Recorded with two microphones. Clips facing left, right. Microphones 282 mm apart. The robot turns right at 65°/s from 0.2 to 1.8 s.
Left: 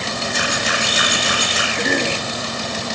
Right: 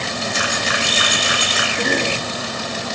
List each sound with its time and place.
0.3 s a camera shutter: 60° left (ahead or behind), 9 m; by 1.7 s 30° left (ahead or behind), 9 m
1.8 s a cough: centre (ahead or behind), 1.6 m